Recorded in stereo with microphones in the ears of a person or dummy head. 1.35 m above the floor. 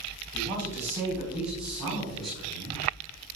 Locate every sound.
0.3 s a woman speaking: 10° right (ahead or behind), 3.5 m; by 2.8 s 15° left (ahead or behind), 6 m